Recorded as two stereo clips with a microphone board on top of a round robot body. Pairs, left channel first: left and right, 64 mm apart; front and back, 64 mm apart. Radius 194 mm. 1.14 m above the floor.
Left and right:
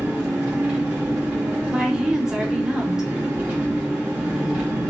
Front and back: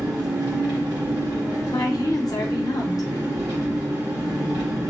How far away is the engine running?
About 1.1 m.